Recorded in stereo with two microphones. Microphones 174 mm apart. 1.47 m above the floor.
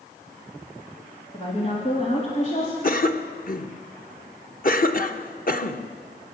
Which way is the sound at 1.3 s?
35° left (ahead or behind).